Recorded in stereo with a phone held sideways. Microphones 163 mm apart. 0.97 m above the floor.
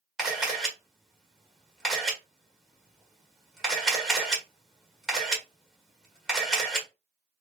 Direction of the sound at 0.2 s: 5° right (ahead or behind).